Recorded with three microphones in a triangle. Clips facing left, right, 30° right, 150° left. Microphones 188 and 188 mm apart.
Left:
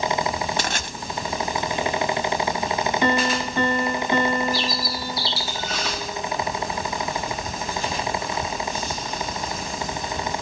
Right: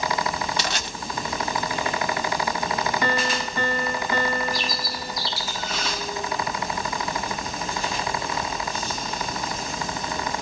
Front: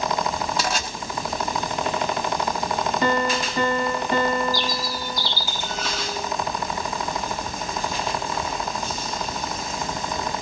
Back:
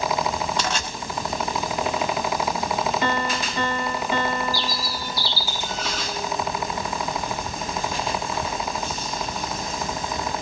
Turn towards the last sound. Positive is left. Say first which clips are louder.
# left 3 dB, front 2 dB
turn(degrees=35)